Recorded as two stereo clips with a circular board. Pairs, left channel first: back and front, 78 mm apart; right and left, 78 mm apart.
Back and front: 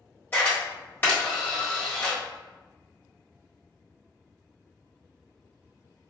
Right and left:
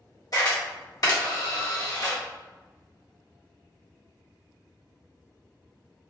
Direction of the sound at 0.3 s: 120° right.